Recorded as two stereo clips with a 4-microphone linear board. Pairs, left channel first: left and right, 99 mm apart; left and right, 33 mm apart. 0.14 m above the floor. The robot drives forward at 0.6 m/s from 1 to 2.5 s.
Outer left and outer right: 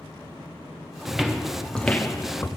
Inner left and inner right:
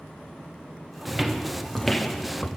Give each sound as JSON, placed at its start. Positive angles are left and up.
{"t": 1.1, "sound": "footsteps", "side_deg": -5, "distance_m": 0.8}